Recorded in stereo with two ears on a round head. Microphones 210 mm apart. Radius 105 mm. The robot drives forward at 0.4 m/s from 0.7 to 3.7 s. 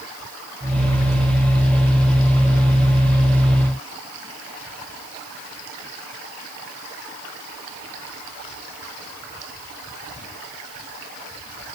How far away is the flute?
I don't hear a flute.